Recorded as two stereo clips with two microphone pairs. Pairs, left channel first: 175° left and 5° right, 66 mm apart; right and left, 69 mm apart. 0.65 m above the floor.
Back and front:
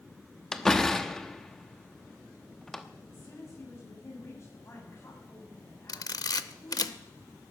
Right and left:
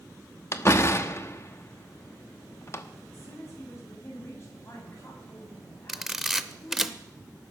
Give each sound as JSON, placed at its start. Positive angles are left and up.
{"t": 0.5, "sound": "a door slam", "azimuth_deg": -105, "distance_m": 0.8}
{"t": 3.1, "sound": "a woman speaking", "azimuth_deg": -140, "distance_m": 5.5}
{"t": 5.9, "sound": "a camera shutter", "azimuth_deg": 175, "distance_m": 0.6}